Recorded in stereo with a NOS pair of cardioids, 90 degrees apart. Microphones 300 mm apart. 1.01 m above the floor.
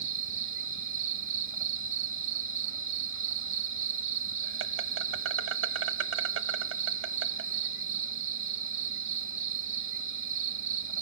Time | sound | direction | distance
0.0 | an insect | 45° right | 1.1 m